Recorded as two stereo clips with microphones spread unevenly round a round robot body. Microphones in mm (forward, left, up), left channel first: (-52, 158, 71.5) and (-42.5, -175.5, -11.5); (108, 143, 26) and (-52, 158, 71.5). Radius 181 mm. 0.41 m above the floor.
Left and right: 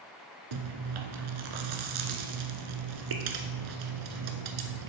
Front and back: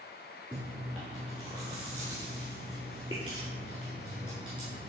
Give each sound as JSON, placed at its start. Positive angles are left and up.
{"t": 0.5, "sound": "chewing", "azimuth_deg": -110, "distance_m": 1.0}